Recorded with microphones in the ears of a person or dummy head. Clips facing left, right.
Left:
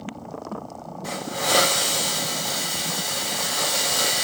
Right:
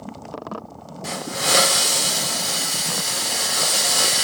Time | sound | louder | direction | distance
1.0 | a hiss | right 1 dB | 35° right (ahead or behind) | 1.1 m